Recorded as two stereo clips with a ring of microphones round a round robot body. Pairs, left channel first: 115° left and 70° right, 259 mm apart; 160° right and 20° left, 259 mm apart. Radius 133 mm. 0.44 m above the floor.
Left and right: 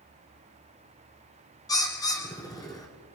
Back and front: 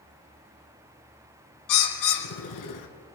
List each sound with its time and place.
1.7 s a bird: 170° right, 2.5 m